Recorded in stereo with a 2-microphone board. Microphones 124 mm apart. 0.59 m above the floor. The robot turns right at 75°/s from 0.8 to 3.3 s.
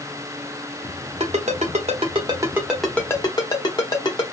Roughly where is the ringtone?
Right.